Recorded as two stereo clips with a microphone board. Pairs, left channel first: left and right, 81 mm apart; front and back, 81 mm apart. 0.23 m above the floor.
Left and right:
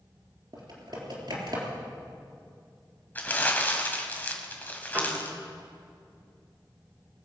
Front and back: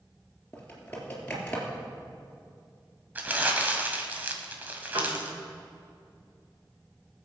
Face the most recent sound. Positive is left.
turn(degrees=-150)